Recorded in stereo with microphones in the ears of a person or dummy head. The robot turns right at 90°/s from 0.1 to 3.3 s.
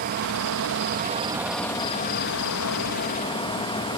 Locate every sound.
0.0 s an insect: 130° right; by 4.0 s 160° left